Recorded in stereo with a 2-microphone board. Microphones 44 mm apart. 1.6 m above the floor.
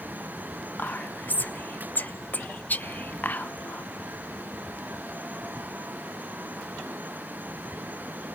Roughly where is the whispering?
Left.